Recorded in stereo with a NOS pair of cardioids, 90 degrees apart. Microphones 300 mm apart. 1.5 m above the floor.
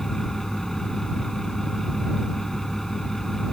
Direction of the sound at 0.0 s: Straight ahead.